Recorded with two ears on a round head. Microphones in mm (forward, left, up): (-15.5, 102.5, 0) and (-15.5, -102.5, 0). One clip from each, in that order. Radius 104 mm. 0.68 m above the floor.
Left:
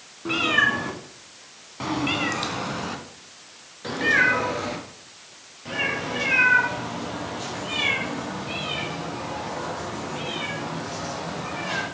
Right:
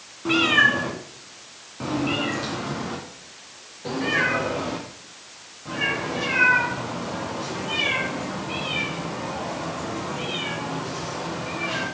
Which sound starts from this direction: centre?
A cat meowing, at 0.2 s.